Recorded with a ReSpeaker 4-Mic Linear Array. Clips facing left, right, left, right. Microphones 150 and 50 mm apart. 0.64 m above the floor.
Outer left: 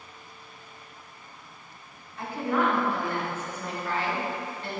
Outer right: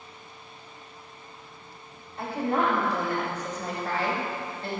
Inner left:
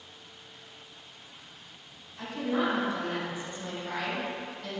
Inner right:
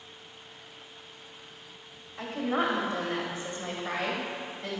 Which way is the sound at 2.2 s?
30° right (ahead or behind).